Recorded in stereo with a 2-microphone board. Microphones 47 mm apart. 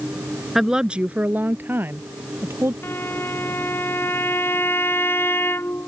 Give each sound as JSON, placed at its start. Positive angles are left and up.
{"t": 0.6, "sound": "a woman speaking", "side_deg": -5}
{"t": 2.8, "sound": "a violin", "side_deg": 60}